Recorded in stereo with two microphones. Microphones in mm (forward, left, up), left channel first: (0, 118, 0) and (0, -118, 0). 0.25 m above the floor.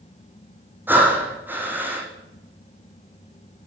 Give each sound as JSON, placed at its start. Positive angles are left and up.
{"t": 0.9, "sound": "breathing", "side_deg": -10, "distance_m": 2.0}